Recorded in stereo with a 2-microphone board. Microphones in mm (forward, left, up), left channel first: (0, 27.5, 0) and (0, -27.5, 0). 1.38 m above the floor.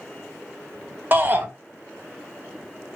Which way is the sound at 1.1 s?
35° right (ahead or behind).